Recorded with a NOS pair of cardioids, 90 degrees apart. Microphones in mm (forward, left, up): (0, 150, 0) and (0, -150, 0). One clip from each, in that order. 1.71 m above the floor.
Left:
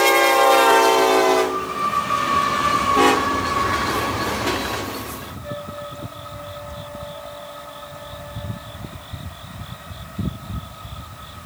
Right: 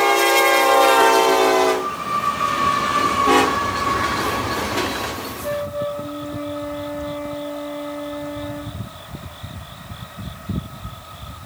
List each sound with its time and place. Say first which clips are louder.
5.4 s a flute: right 9 dB; 60° right, 3.5 m